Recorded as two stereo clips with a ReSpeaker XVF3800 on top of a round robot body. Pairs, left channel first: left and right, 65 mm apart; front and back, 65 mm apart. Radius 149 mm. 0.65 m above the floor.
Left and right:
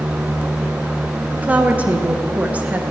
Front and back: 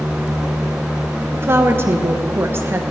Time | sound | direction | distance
1.3 | a woman speaking | 145° right | 1.0 m